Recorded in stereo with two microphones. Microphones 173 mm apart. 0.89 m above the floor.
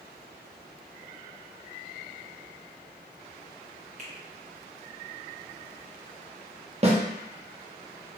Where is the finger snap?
40° right (ahead or behind), 0.8 m.